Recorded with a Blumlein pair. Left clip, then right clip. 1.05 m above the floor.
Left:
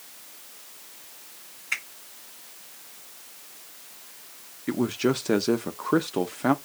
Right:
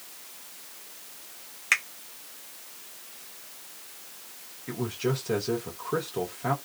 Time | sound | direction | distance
1.7 | a finger snap | 35° right | 1.4 m
4.7 | a man speaking | 25° left | 0.7 m